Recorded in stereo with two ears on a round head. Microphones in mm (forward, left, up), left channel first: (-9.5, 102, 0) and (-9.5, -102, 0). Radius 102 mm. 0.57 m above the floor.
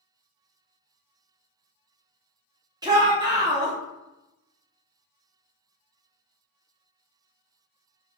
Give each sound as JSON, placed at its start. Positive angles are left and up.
{"t": 2.8, "sound": "a shout", "side_deg": -20, "distance_m": 0.8}